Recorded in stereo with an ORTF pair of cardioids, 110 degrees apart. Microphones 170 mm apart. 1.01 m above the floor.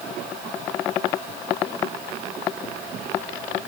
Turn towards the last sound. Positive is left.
No sound to turn to.